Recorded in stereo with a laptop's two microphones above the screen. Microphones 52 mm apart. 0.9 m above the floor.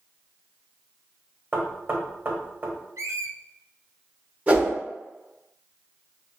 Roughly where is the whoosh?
Right.